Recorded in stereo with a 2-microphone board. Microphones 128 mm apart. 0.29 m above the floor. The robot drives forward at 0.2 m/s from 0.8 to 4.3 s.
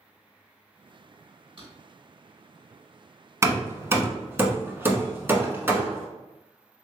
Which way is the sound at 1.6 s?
45° right (ahead or behind).